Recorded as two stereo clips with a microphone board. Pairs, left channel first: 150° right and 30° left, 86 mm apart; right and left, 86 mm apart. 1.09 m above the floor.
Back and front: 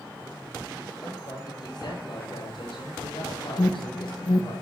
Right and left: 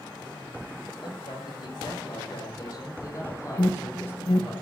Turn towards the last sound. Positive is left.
turn(degrees=-125)